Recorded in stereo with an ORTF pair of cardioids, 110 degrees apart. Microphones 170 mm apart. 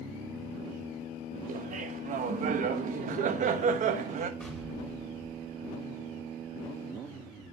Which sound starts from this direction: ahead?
An explosion, at 4.4 s.